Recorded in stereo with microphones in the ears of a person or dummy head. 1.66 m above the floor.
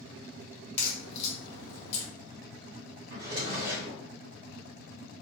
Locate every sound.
0.8 s a crack: 40° left (ahead or behind), 1.2 m
3.1 s a drawer: 55° right (ahead or behind), 1.6 m